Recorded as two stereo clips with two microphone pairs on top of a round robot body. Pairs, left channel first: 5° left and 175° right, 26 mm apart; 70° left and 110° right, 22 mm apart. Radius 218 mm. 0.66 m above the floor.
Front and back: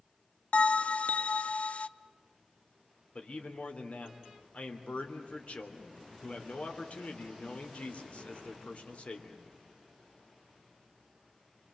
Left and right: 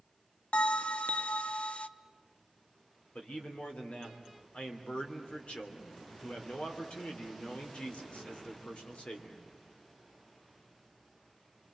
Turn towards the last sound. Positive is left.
turn(degrees=45)